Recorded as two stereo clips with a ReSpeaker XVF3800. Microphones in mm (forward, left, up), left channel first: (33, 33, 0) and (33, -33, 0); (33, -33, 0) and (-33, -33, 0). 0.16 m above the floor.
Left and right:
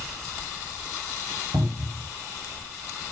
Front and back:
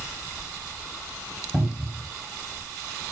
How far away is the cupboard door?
About 4 m.